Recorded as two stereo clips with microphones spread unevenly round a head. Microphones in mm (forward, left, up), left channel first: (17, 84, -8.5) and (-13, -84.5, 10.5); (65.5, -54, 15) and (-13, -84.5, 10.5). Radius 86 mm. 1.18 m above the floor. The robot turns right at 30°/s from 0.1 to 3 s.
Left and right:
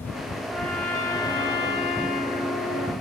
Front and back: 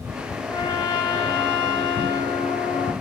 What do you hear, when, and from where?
0.5 s a trumpet: 10° right, 1.1 m; by 2.9 s 65° left, 1.1 m